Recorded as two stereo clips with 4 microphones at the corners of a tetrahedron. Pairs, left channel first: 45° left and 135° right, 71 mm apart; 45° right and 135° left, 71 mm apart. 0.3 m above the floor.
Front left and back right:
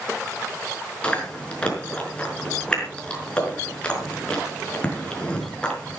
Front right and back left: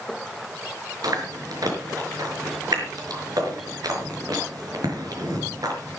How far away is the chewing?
About 5 m.